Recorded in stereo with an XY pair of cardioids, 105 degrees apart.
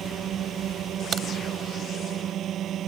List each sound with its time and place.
0.0 s a drone: 65° right
1.1 s a crack: 50° right